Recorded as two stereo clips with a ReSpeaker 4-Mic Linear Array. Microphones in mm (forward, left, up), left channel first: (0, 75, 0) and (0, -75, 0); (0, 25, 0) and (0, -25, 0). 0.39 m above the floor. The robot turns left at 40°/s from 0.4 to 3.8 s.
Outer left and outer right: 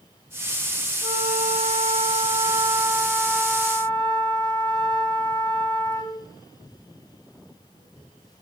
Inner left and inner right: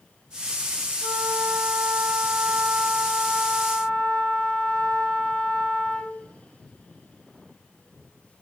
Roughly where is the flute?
Right.